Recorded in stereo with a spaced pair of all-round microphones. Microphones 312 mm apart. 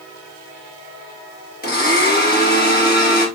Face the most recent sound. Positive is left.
turn(degrees=30)  # may be behind; listen again after turning